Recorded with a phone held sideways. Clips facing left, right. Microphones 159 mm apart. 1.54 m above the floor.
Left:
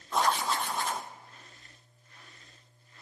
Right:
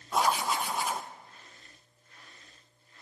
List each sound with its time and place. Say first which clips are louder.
0.1 s writing: right 1 dB; 10° right (ahead or behind), 0.6 m